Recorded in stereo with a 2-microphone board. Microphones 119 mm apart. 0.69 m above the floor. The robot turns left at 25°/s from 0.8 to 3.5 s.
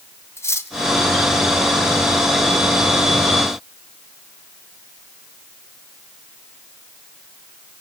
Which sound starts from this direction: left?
Cutlery clinking, at 0.4 s.